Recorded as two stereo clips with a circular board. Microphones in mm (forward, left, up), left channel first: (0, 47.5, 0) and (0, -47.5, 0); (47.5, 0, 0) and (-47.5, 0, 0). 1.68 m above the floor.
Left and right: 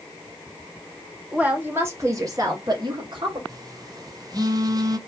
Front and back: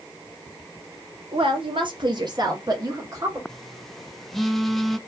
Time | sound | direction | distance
1.3 | a woman speaking | 165° right | 1.0 m
3.5 | a phone buzzing | 90° right | 0.5 m